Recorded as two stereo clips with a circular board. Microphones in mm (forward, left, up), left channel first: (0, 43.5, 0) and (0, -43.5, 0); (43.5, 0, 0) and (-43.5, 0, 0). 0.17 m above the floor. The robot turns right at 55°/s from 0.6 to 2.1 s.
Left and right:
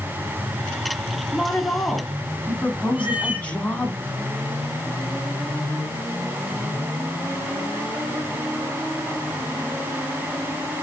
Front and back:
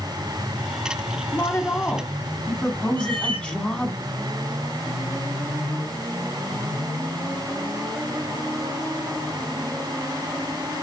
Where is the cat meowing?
165° right, 0.9 m.